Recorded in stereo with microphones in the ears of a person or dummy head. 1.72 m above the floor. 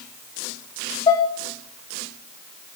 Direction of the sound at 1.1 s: 25° left (ahead or behind).